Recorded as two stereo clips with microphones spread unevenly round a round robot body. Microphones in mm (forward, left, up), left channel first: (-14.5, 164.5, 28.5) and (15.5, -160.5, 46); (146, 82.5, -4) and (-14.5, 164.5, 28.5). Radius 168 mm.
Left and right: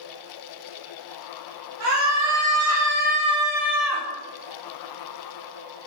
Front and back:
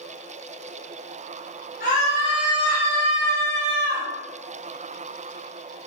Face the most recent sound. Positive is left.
turn(degrees=180)